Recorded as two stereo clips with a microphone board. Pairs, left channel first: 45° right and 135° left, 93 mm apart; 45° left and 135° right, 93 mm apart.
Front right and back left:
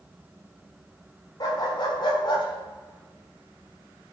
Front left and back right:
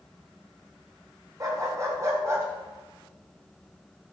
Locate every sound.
1.4 s a dog barking: 85° right, 3 m; by 4.1 s 55° right, 2.0 m